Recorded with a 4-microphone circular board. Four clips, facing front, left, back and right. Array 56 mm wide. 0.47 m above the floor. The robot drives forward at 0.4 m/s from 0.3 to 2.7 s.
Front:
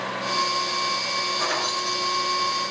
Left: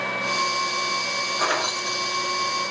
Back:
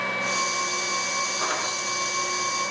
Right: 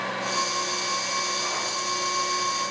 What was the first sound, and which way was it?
Keys jangling, 90° left.